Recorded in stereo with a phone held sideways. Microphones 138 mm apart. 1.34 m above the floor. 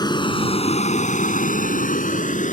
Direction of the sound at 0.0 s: 30° left (ahead or behind).